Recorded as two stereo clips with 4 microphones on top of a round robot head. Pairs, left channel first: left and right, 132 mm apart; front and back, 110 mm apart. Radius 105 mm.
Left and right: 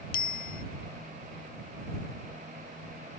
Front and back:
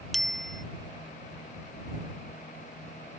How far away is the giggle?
No giggle in this recording.